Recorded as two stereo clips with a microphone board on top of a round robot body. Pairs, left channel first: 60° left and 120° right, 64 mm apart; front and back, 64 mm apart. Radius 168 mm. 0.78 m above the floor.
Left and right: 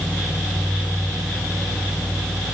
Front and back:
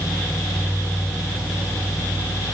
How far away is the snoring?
No snoring in this recording.